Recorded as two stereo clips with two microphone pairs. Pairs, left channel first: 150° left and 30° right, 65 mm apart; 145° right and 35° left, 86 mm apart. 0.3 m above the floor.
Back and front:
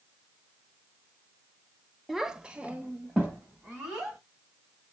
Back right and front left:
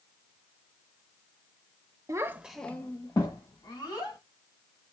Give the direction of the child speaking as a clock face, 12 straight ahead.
10 o'clock.